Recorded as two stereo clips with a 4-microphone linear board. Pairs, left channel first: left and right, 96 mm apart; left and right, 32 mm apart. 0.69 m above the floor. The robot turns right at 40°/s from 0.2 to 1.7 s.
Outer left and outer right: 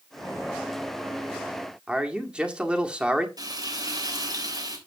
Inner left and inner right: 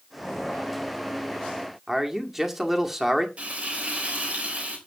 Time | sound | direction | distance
1.9 | a man speaking | 10° right (ahead or behind) | 1.6 m
3.4 | frying | 40° right (ahead or behind) | 3.5 m